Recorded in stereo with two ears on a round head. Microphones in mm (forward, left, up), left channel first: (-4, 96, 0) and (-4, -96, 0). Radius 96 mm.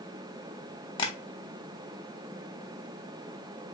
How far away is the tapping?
About 1.0 m.